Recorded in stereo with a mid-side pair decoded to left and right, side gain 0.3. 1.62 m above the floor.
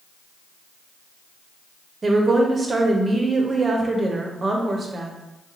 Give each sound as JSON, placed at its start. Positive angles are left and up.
{"t": 2.0, "sound": "a woman speaking", "azimuth_deg": -45, "distance_m": 0.7}